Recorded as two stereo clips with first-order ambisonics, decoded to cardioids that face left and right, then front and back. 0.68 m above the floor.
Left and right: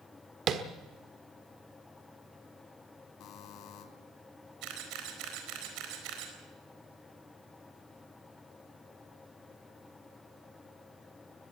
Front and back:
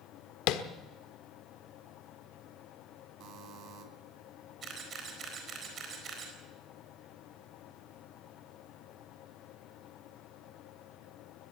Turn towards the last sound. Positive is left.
turn(degrees=-120)